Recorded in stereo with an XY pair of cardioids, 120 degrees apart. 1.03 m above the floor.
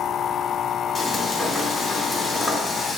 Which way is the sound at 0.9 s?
30° left.